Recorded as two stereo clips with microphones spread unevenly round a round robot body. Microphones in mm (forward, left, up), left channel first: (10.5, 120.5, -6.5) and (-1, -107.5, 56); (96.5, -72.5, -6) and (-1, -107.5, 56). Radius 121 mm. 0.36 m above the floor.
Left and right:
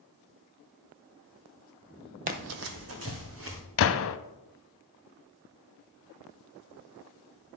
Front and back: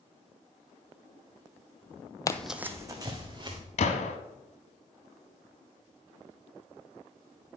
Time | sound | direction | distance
2.3 | running footsteps | 60° right | 0.5 m
3.8 | a gunshot | 55° left | 0.5 m